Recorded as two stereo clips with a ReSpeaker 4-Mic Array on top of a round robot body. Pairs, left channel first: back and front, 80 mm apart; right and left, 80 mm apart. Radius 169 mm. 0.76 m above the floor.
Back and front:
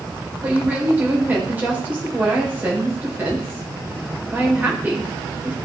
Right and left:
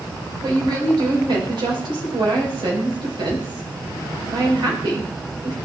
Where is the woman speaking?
70° left, 4.5 m.